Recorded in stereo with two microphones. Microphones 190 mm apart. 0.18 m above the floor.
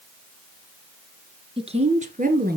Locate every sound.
1.6 s a woman speaking: 30° right (ahead or behind), 2 m; by 2.6 s 55° right (ahead or behind), 2.5 m